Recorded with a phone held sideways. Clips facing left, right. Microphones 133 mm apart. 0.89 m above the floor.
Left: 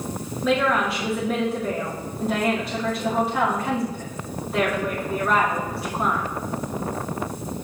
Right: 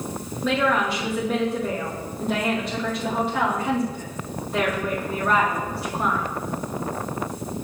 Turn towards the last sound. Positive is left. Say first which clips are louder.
# left 1 dB
turn(degrees=5)  # may be behind; listen again after turning